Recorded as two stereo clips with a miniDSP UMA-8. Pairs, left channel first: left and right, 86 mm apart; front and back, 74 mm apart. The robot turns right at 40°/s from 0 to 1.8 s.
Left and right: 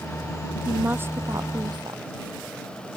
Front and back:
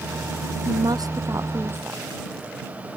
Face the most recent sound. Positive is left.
turn(degrees=-120)